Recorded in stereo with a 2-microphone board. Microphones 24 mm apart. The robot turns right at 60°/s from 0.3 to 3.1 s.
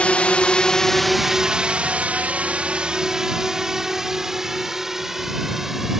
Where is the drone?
65° left (ahead or behind); by 6.0 s 15° right (ahead or behind).